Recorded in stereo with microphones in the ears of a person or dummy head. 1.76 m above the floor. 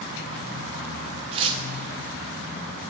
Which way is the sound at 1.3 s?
30° right (ahead or behind).